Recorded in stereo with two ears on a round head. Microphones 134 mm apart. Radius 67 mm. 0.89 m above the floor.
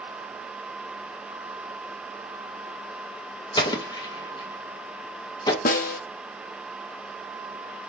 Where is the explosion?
30° left (ahead or behind), 1.0 m.